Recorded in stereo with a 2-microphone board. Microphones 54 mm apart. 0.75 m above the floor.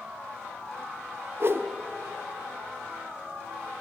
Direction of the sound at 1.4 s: 50° right (ahead or behind).